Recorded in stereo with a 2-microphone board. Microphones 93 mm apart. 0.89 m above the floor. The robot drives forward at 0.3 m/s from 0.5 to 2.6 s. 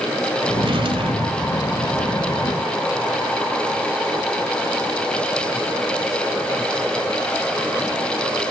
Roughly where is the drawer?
Right.